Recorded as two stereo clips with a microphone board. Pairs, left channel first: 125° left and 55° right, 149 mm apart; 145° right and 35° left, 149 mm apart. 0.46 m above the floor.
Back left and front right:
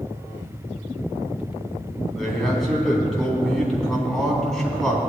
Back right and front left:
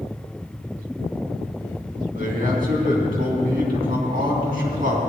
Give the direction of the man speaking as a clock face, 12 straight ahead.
11 o'clock.